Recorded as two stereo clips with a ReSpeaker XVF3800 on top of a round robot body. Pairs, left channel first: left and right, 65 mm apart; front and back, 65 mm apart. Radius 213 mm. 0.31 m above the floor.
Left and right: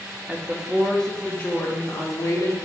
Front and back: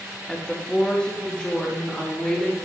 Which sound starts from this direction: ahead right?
A woman speaking, at 0.3 s.